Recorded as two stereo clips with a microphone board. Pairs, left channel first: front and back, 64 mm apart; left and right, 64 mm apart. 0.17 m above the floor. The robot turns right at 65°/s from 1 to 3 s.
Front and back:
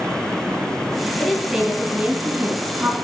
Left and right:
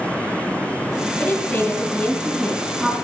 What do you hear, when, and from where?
1.2 s a woman speaking: 85° left, 1.9 m; by 3.0 s 160° right, 1.9 m